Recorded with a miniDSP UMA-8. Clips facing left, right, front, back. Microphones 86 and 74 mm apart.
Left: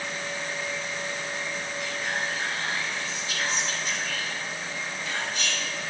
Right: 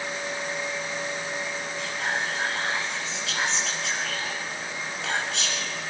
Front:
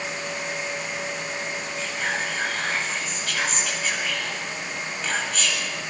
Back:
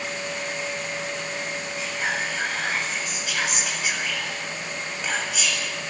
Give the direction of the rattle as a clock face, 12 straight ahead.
No rattle in this recording.